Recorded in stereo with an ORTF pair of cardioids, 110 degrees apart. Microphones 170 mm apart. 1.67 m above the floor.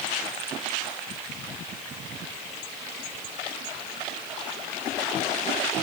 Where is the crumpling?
No crumpling in this recording.